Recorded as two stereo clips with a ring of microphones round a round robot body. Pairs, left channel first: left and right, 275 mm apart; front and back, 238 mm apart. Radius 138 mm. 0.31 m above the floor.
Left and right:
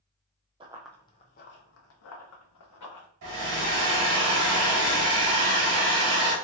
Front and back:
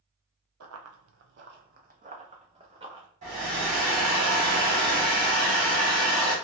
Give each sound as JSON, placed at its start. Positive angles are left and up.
{"t": 0.6, "sound": "running footsteps", "azimuth_deg": -160, "distance_m": 0.5}
{"t": 3.2, "sound": "a hair dryer", "azimuth_deg": -120, "distance_m": 1.5}